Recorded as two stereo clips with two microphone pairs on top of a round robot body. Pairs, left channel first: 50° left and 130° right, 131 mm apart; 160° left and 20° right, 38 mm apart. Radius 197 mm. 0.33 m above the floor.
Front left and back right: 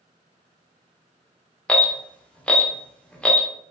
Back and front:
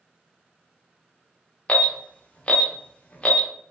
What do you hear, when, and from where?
1.7 s an alarm: 125° left, 0.8 m